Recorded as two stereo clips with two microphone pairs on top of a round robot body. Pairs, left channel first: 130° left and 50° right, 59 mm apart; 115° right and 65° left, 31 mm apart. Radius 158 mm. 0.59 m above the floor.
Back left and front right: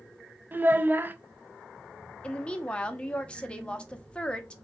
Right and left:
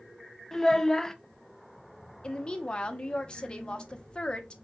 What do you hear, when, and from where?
0.5 s a child speaking: 60° right, 0.6 m
2.2 s a woman speaking: 165° right, 0.8 m